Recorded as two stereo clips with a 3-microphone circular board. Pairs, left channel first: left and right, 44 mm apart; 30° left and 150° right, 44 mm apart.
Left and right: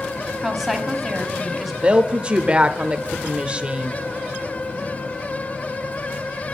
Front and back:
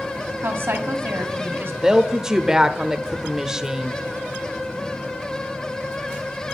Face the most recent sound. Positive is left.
turn(degrees=-95)